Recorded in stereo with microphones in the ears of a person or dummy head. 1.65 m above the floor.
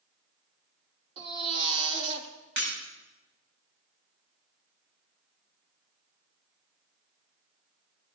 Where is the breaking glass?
65° right (ahead or behind), 7 m.